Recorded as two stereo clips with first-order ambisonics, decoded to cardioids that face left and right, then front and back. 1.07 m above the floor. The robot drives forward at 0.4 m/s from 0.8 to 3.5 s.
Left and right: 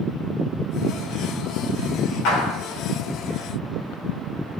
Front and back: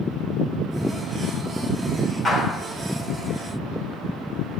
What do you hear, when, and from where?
2.2 s a clap: 85° left, 3.5 m